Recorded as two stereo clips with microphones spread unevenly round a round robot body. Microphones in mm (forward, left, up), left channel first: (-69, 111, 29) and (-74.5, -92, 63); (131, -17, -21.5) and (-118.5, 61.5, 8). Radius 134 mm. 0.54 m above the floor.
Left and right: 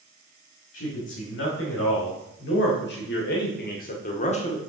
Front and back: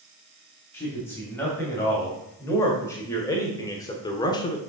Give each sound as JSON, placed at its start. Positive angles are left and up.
{"t": 0.7, "sound": "a man speaking", "azimuth_deg": 65, "distance_m": 3.0}